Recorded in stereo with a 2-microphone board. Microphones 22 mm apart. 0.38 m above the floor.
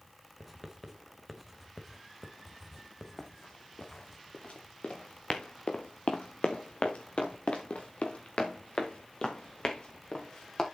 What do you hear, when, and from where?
0.4 s writing: 5° left (ahead or behind), 1.8 m
3.2 s running footsteps: 60° left (ahead or behind), 2.5 m; by 10.7 s 40° left (ahead or behind), 3 m